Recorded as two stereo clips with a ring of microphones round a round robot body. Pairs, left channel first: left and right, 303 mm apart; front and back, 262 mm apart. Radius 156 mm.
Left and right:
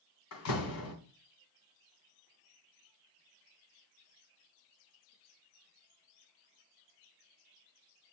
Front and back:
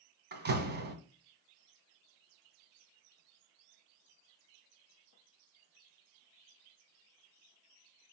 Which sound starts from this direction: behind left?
A door slam, at 0.3 s.